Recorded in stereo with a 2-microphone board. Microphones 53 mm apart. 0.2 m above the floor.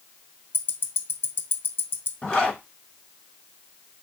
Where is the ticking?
50° left (ahead or behind), 0.5 m.